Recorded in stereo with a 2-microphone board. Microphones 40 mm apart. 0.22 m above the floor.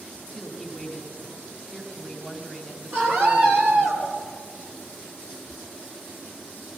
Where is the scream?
65° right (ahead or behind), 6 m.